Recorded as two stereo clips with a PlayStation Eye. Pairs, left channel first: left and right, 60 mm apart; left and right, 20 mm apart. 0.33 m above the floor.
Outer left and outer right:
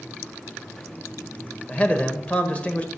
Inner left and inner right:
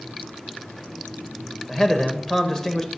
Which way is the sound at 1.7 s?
20° left (ahead or behind).